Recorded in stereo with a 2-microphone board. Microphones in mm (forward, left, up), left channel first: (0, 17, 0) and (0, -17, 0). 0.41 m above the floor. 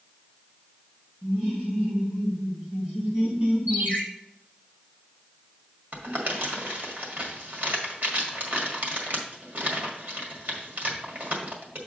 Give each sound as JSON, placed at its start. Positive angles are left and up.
{"t": 1.2, "sound": "laughter", "side_deg": -45, "distance_m": 4.0}
{"t": 3.7, "sound": "a ringtone", "side_deg": -65, "distance_m": 4.0}
{"t": 5.9, "sound": "crumpling", "side_deg": -60, "distance_m": 1.8}